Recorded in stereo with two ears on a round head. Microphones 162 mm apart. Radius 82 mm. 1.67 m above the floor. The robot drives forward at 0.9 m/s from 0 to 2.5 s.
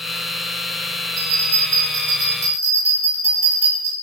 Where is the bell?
50° right (ahead or behind), 7.5 m; by 3.9 s 45° right (ahead or behind), 8.5 m.